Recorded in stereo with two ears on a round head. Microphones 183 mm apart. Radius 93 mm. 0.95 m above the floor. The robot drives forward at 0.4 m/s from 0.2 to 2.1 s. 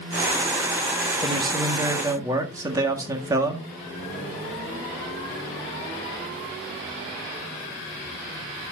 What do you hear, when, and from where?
1.2 s a man speaking: 20° right (ahead or behind), 1.1 m; by 3.6 s 15° right (ahead or behind), 1.4 m